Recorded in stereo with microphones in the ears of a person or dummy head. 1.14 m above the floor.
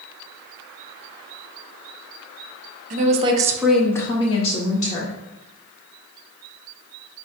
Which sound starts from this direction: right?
A woman speaking, at 2.9 s.